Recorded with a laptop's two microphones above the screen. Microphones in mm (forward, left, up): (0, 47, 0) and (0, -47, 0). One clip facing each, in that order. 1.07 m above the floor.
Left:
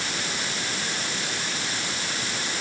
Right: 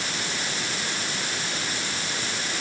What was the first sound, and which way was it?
Only background noise.